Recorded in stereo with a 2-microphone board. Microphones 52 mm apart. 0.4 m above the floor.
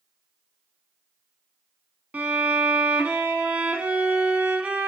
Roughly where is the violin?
Right.